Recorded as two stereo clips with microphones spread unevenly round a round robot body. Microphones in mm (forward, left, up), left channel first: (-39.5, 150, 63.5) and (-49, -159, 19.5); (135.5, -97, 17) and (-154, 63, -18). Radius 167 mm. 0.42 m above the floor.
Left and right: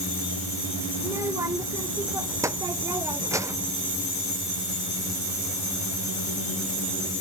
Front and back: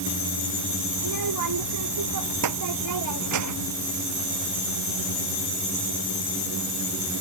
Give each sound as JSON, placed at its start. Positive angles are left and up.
{"t": 1.0, "sound": "a child speaking", "azimuth_deg": -175}